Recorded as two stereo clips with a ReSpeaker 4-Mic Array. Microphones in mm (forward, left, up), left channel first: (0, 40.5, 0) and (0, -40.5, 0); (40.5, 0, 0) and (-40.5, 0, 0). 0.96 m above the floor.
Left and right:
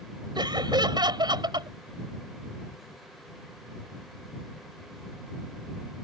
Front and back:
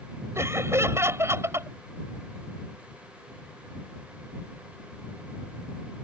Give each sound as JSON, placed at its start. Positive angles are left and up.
{"t": 0.3, "sound": "laughter", "azimuth_deg": -120}